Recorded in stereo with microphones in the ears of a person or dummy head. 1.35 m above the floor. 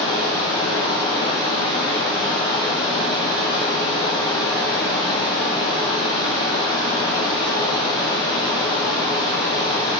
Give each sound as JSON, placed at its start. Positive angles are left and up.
{"t": 0.0, "sound": "running water", "side_deg": 25, "distance_m": 1.1}